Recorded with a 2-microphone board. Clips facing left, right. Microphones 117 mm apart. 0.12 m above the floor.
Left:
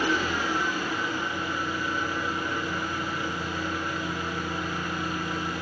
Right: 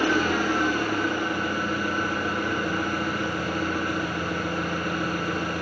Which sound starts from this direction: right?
An engine running, at 0.0 s.